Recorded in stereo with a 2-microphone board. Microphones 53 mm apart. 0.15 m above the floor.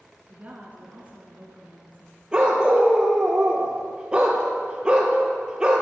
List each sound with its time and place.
0.3 s a woman speaking: 30° right (ahead or behind), 1.3 m
2.3 s a dog barking: 15° right (ahead or behind), 1.5 m